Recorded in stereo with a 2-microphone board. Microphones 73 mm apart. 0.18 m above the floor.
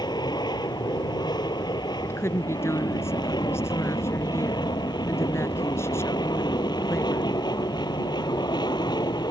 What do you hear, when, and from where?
0.0 s an aircraft: 70° left (ahead or behind)
2.0 s a woman speaking: 35° left (ahead or behind)